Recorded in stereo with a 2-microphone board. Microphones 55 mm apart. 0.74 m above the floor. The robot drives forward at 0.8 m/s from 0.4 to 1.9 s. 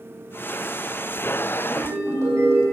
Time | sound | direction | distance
1.6 | a ringtone | 80° right | 5.5 m